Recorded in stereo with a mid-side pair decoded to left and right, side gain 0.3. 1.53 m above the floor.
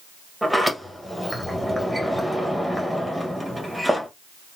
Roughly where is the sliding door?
Ahead.